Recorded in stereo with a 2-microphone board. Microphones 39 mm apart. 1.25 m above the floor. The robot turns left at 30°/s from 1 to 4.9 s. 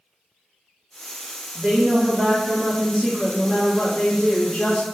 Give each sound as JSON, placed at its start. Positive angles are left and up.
{"t": 1.6, "sound": "a woman speaking", "azimuth_deg": -130, "distance_m": 0.6}